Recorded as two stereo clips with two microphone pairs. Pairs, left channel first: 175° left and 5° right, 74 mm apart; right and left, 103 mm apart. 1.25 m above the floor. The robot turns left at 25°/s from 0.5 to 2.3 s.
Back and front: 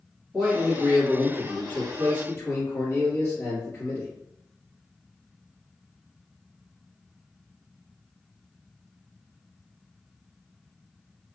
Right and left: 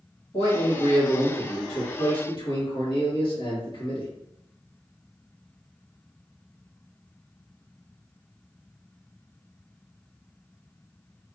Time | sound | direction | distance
0.3 | a man speaking | 85° right | 1.4 m